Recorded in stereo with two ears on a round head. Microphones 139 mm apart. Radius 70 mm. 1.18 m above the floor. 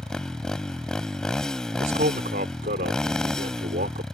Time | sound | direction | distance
0.0 | a motorcycle | 5° left (ahead or behind) | ?
1.8 | a man speaking | 55° right (ahead or behind) | ?